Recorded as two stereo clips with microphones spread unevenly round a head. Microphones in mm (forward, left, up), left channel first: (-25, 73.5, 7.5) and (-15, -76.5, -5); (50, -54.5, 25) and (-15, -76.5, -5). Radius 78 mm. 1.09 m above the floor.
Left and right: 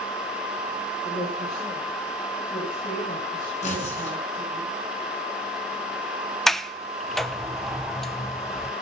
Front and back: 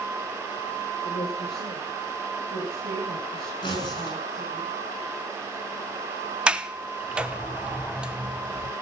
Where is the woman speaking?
30° left, 3.5 m; by 4.6 s 25° left, 8 m.